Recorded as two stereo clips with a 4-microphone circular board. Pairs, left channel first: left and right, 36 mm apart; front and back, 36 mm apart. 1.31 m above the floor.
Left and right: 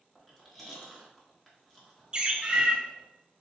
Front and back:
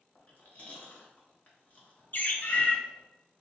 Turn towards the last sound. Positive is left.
turn(degrees=-25)